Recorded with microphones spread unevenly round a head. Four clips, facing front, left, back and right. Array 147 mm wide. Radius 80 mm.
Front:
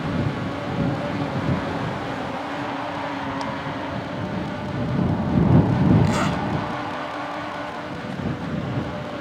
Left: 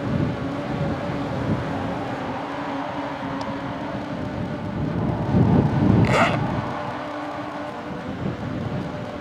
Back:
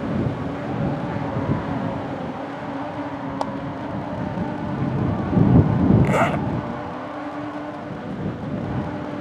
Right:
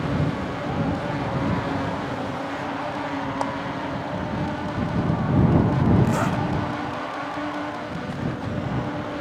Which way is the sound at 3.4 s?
160° right.